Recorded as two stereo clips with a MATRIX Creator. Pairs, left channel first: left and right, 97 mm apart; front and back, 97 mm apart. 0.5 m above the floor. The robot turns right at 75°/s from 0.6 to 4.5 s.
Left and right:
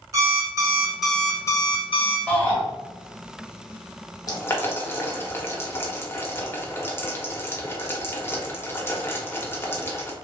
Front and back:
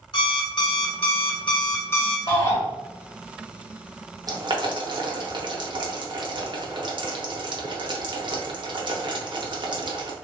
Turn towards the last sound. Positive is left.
turn(degrees=150)